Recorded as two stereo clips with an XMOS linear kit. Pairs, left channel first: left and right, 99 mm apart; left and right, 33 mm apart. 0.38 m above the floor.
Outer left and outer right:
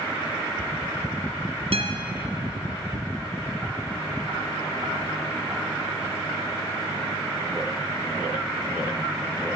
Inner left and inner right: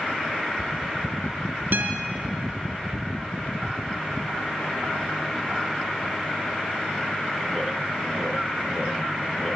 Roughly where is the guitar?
Right.